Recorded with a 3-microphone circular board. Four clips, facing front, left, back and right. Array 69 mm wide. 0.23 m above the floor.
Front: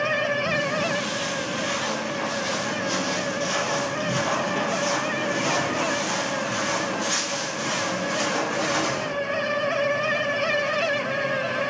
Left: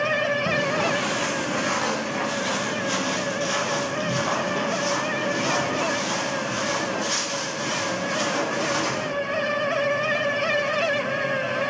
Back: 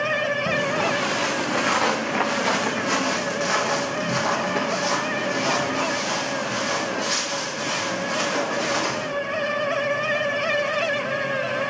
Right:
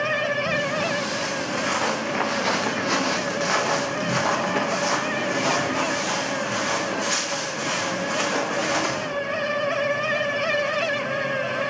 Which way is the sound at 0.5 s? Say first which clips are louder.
Left 1 dB, back 2 dB; 145° left.